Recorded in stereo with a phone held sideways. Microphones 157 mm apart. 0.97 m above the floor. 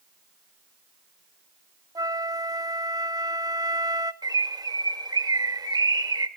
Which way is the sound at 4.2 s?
25° right (ahead or behind).